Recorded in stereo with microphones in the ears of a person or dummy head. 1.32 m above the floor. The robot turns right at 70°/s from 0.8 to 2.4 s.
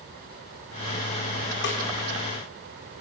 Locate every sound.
1.6 s a snare drum: 60° left (ahead or behind), 3.5 m; by 1.8 s 50° left (ahead or behind), 3.5 m